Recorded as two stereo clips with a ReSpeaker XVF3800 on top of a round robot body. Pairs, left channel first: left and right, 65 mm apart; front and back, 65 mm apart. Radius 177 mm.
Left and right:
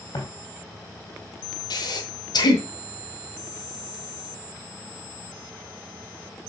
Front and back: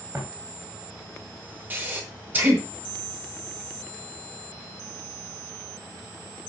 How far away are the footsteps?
About 3.5 m.